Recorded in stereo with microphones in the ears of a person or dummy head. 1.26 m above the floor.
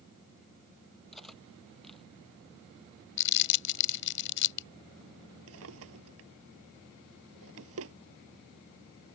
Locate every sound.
1.1 s cutlery clinking: centre (ahead or behind)
3.2 s crumpling: 70° left (ahead or behind)
5.5 s a drawer: 85° right